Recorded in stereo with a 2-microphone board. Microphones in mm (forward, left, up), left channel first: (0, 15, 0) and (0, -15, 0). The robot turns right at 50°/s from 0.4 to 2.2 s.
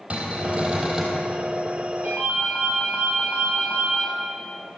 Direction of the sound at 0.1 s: 35° right.